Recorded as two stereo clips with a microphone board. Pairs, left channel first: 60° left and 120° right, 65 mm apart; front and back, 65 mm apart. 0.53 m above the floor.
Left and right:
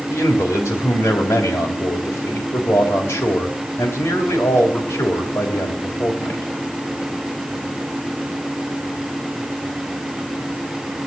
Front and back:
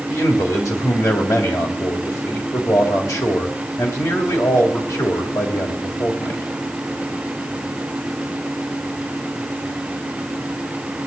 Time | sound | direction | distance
0.1 | a man speaking | 15° left | 3 m